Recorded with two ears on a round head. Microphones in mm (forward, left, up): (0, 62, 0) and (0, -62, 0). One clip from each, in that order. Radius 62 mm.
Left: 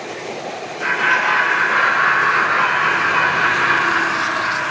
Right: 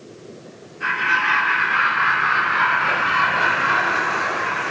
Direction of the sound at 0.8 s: 50° left (ahead or behind).